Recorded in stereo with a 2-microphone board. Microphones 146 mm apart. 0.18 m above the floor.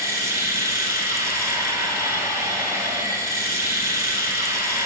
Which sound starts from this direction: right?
Running water, at 0.0 s.